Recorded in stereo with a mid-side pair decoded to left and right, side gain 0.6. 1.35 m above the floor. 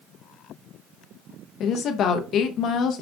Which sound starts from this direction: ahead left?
A woman speaking, at 1.6 s.